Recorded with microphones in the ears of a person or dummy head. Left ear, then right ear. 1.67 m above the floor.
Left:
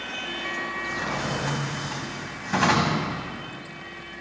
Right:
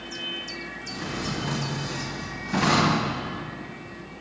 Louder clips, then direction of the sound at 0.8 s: Left 4 dB; 45° left (ahead or behind).